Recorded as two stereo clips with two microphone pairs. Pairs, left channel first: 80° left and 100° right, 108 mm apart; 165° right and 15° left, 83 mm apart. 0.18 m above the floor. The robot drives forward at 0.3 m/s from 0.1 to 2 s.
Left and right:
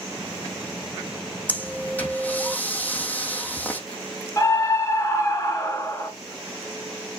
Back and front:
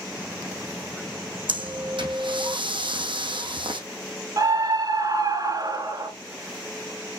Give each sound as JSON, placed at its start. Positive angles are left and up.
{"t": 1.5, "sound": "breathing", "azimuth_deg": 5, "distance_m": 2.5}
{"t": 4.4, "sound": "a scream", "azimuth_deg": 30, "distance_m": 2.5}